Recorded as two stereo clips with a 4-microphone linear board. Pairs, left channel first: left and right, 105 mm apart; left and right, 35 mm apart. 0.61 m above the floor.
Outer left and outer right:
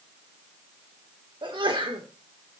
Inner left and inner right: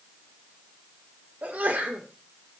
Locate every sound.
1.4 s a sneeze: 50° right (ahead or behind), 1.7 m